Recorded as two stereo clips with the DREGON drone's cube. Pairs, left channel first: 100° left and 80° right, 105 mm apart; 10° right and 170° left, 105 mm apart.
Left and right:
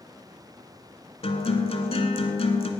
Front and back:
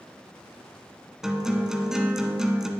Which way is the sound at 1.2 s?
85° left.